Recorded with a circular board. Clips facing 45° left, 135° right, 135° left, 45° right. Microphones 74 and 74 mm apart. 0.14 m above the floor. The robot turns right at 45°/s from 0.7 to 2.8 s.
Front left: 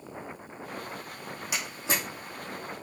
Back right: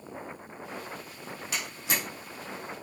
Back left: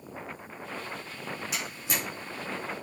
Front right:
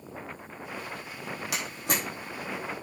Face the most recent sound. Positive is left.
turn(degrees=25)